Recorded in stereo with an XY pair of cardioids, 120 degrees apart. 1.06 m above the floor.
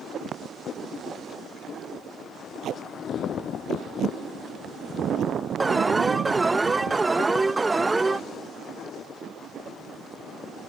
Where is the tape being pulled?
55° right.